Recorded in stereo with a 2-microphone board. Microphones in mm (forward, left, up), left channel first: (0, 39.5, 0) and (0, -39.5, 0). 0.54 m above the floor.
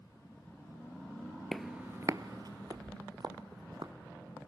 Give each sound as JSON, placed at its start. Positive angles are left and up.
{"t": 1.5, "sound": "footsteps", "side_deg": 5, "distance_m": 0.7}